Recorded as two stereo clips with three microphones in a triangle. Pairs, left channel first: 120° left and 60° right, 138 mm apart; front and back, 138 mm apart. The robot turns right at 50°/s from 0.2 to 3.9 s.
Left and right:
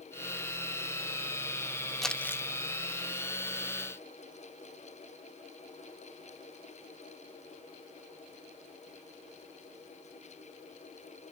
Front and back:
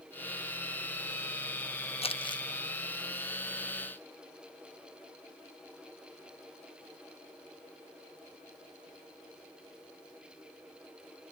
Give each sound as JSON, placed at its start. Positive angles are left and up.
{"t": 2.0, "sound": "crumpling", "azimuth_deg": 30, "distance_m": 0.6}